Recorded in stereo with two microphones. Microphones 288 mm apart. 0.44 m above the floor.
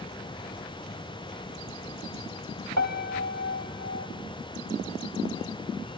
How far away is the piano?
About 1.1 m.